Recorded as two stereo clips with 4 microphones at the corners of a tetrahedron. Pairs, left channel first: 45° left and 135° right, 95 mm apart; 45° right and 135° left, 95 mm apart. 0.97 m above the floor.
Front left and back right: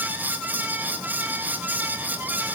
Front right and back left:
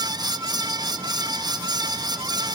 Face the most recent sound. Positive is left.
No sound to turn to.